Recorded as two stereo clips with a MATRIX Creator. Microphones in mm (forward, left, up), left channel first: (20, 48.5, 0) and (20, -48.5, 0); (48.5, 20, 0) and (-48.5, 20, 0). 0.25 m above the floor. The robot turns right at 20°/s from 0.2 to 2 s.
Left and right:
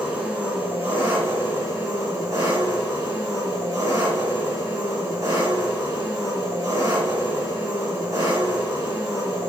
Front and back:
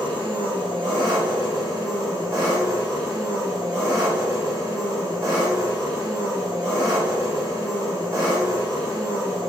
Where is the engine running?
175° right, 1.5 m; by 9.5 s 140° right, 1.5 m.